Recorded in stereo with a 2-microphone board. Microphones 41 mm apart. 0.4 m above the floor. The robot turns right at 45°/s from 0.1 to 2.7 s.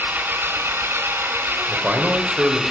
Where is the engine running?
125° right, 1.8 m; by 2.7 s 10° right, 1.8 m.